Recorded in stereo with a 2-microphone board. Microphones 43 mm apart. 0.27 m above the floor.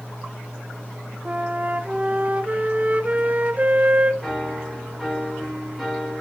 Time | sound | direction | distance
1.2 | a flute | 35° right (ahead or behind) | 0.5 m
4.2 | a piano | 5° left (ahead or behind) | 1.7 m